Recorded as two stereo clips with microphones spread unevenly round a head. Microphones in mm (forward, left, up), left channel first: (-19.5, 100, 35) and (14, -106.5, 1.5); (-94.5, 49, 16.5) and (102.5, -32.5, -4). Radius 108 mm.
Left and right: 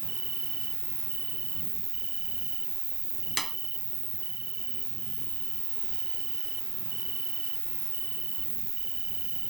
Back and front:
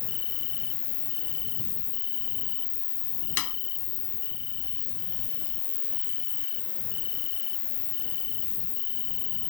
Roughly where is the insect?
Behind.